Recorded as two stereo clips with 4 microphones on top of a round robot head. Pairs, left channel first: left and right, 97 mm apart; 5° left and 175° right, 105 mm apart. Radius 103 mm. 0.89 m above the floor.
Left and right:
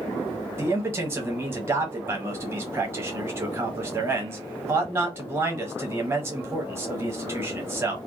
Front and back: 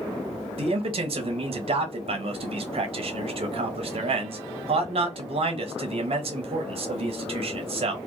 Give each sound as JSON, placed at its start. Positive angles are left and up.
{"t": 0.6, "sound": "a man speaking", "azimuth_deg": -155, "distance_m": 0.9}